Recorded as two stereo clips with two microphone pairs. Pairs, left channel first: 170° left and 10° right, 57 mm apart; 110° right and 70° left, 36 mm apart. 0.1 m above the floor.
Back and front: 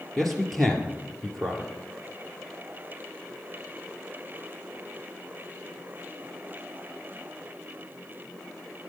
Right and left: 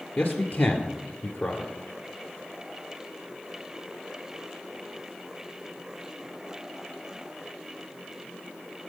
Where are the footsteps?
I don't hear footsteps.